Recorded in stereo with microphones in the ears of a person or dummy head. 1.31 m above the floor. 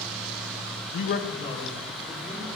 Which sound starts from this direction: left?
A man speaking, at 0.9 s.